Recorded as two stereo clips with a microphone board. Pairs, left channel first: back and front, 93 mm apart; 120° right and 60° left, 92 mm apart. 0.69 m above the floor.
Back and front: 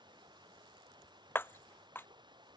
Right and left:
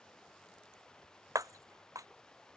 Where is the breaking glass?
115° left.